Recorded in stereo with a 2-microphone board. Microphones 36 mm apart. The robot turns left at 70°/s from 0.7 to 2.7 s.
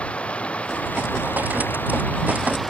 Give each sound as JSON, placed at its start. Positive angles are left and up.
{"t": 0.0, "sound": "running water", "azimuth_deg": 145}